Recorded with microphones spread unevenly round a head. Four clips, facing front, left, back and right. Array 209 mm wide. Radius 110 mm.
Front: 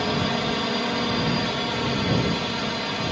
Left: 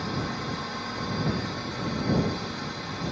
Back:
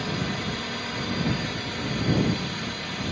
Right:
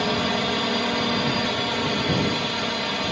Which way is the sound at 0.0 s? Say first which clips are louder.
Right 8 dB, front 6 dB; 60° right.